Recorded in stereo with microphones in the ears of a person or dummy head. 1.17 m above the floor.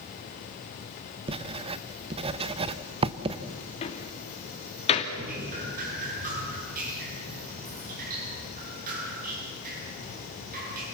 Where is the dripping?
45° right (ahead or behind), 8 m.